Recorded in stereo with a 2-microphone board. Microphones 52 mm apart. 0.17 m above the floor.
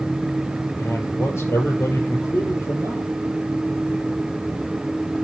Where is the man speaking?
70° left (ahead or behind), 4.5 m.